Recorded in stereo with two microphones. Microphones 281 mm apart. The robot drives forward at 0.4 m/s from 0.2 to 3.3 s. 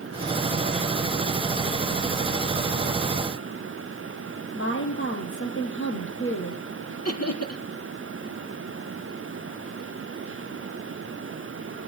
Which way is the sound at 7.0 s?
60° left (ahead or behind).